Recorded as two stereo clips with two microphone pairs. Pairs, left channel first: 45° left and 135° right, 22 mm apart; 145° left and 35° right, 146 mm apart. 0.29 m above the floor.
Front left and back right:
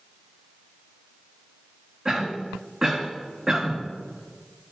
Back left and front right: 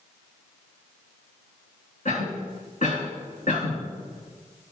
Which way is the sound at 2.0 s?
160° left.